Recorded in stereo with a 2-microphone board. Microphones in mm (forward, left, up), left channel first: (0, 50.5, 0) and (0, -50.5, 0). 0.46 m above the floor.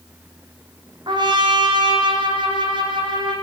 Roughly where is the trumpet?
Right.